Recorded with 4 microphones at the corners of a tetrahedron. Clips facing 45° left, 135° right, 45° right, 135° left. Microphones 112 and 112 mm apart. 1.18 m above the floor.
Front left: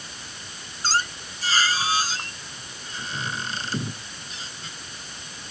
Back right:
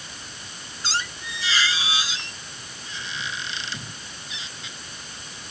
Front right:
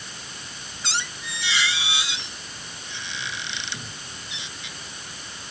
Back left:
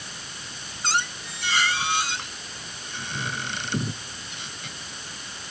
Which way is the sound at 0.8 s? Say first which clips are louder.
Front left 4 dB, back left 5 dB; 95° left.